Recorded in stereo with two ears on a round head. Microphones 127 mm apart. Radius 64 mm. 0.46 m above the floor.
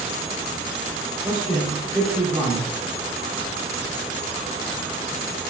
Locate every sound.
1.2 s a man speaking: 15° right (ahead or behind), 0.8 m